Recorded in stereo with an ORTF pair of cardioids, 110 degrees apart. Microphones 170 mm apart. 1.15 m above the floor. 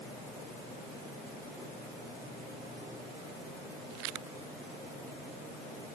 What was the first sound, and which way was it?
Only background noise.